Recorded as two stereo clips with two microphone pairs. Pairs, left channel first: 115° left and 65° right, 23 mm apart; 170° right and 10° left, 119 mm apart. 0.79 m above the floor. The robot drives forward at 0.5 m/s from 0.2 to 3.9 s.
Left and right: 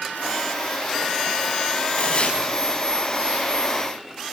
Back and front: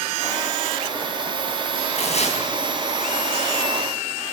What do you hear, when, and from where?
1.9 s tearing paper: 155° left, 5.5 m; by 2.4 s 160° left, 6 m